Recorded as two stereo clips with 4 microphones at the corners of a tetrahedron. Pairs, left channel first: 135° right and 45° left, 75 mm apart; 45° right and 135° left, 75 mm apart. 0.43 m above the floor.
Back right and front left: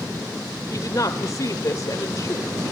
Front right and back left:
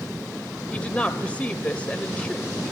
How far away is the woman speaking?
About 1.5 m.